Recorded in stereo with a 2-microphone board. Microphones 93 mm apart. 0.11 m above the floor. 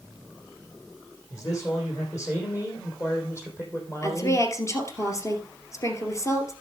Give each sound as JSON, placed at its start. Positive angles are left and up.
{"t": 1.3, "sound": "a man speaking", "side_deg": 35, "distance_m": 5.5}
{"t": 4.0, "sound": "a woman speaking", "side_deg": 35, "distance_m": 2.5}